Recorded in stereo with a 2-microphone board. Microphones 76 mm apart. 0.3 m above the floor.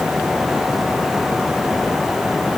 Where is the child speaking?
No child speaking in this recording.